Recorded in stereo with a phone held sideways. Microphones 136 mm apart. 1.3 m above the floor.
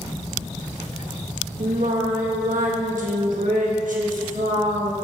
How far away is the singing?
About 1.4 m.